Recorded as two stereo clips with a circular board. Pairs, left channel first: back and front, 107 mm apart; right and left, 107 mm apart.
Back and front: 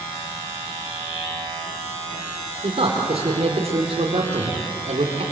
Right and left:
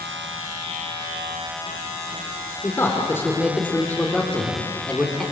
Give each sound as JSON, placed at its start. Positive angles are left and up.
{"t": 2.6, "sound": "a man speaking", "azimuth_deg": -30, "distance_m": 4.0}